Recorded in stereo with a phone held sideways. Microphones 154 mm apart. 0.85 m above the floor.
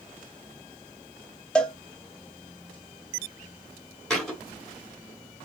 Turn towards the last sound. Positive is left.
turn(degrees=5)  # may be behind; listen again after turning